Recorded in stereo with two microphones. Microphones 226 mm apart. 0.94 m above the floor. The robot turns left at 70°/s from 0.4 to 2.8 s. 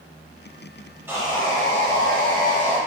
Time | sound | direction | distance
1.1 | sawing | 15° right | 1.0 m